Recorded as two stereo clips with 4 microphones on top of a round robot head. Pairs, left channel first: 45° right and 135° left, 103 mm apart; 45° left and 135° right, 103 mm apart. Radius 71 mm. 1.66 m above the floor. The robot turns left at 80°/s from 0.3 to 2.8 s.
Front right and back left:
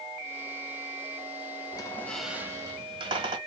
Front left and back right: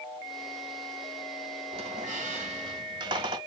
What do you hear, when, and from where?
1.7 s a squeak: 95° right, 2 m; by 3.4 s straight behind, 2 m